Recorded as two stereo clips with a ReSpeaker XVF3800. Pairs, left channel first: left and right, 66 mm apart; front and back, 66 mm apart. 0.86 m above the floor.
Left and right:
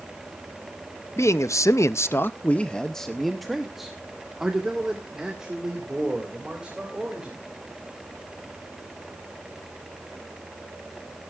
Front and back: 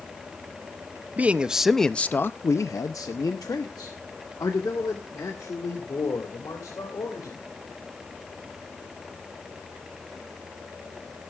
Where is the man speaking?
120° left, 0.7 m; by 7.4 s 15° right, 3 m.